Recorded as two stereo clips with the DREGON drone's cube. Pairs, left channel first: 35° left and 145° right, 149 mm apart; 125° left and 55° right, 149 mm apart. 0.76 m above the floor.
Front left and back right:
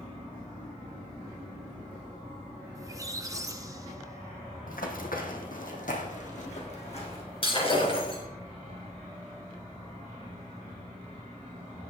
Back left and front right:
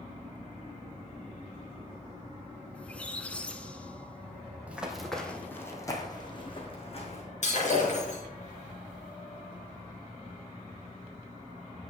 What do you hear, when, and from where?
2.8 s a squeak: 165° right, 0.7 m
4.7 s running footsteps: 25° left, 2.0 m; by 7.2 s 80° left, 3 m
7.4 s breaking glass: 90° left, 4 m